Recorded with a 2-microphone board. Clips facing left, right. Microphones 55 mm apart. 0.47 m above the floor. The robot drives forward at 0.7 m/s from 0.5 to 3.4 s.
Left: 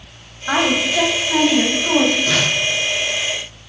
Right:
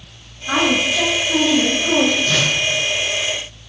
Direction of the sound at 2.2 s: 80° left.